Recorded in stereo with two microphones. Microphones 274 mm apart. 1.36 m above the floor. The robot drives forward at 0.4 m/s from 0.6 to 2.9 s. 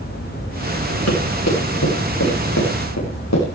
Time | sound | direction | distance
1.1 | running footsteps | 60° left (ahead or behind) | 8 m